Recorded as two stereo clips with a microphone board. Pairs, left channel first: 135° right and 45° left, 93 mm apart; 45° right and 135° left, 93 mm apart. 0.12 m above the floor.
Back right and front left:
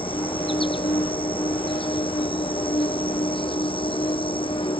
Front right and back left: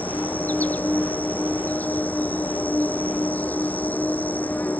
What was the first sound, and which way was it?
An insect, 115° right.